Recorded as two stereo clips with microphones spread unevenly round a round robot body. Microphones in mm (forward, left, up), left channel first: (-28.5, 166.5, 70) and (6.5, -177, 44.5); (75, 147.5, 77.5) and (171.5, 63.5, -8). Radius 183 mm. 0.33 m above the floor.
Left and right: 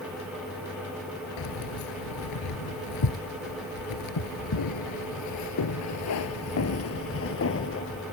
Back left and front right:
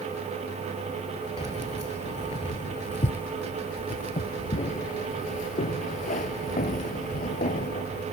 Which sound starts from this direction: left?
Keys jangling, at 1.4 s.